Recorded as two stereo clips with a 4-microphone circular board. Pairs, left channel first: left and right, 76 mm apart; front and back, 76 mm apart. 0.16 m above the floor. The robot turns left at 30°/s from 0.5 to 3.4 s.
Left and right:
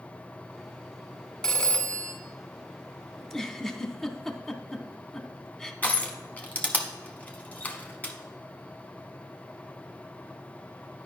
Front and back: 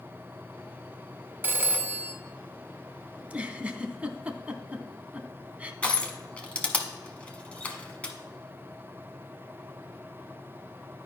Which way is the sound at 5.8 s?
50° left.